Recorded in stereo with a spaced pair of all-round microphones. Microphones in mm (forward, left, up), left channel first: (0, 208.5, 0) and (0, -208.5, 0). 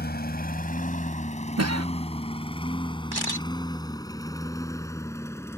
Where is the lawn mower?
25° left (ahead or behind); by 5.6 s 5° left (ahead or behind).